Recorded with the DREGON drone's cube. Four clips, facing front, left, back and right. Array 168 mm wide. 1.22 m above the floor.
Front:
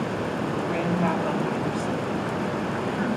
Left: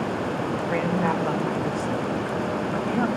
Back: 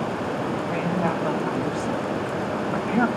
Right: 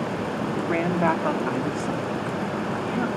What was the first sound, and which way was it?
A woman speaking, 85° right.